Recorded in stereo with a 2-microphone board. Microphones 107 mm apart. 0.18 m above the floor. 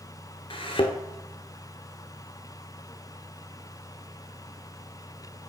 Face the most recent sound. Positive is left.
turn(degrees=60)  # may be behind; listen again after turning